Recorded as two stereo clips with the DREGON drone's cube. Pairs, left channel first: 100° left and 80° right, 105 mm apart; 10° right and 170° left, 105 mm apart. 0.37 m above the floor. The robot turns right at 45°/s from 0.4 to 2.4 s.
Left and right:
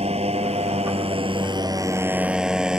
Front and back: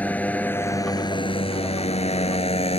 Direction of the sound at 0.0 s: 85° right.